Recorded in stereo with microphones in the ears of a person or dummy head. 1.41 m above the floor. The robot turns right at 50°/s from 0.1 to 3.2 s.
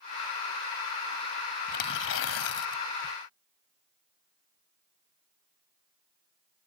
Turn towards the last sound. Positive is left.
turn(degrees=130)